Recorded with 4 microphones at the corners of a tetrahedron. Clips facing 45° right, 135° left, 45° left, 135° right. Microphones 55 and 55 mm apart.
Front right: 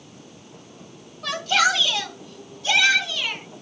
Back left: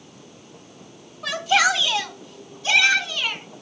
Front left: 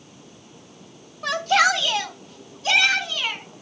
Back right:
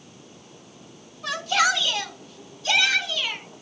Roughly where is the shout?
Ahead left.